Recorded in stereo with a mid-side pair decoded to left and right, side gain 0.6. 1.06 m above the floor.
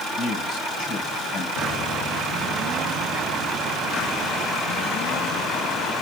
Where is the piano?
40° left, 6 m.